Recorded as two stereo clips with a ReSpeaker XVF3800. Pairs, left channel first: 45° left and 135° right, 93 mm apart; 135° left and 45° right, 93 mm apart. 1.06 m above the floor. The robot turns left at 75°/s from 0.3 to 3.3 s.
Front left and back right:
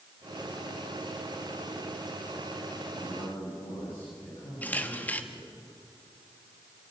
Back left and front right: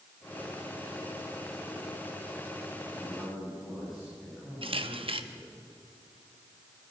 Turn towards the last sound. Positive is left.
turn(degrees=-30)